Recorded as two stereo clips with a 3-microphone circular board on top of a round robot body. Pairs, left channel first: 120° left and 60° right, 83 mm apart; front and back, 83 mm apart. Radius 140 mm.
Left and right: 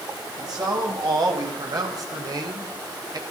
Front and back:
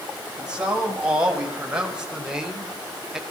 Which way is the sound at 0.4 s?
100° right.